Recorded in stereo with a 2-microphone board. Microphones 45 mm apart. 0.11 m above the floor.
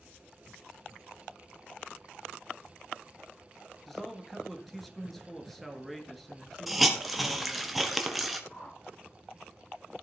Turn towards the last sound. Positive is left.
turn(degrees=15)  # may be behind; listen again after turning